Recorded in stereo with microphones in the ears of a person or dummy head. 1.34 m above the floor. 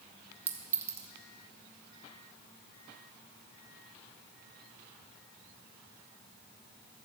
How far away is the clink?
About 0.8 m.